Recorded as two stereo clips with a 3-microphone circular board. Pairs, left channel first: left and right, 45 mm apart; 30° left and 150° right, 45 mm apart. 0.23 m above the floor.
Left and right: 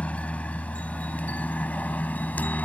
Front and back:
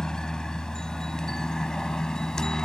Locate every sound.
0.0 s a helicopter: 90° left; by 2.7 s 95° left